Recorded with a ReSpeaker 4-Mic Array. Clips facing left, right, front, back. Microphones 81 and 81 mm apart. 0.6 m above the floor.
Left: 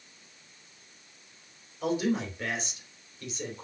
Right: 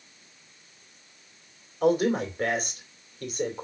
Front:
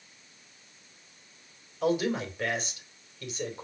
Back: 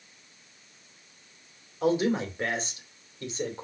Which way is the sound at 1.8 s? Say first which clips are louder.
Right 6 dB, back 2 dB; 125° right.